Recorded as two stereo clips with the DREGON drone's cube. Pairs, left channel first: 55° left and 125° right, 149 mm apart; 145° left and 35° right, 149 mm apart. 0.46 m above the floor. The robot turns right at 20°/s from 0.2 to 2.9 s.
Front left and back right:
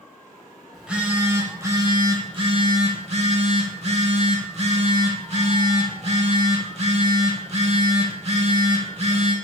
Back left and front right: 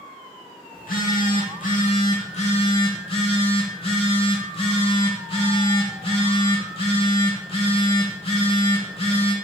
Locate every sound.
0.7 s a phone buzzing: 150° left, 0.8 m; by 9.3 s 165° right, 0.8 m